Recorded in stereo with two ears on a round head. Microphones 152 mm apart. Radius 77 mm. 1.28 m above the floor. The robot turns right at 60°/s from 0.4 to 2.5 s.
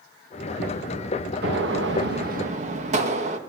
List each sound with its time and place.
1.4 s a gunshot: 105° right, 2 m; by 3.4 s 45° right, 2 m